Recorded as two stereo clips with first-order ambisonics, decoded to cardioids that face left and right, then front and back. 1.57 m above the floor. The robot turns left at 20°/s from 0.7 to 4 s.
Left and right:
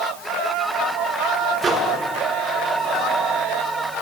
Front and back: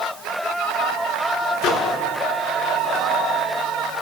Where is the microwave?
25° right, 1.2 m; by 1.9 s 30° right, 1.2 m.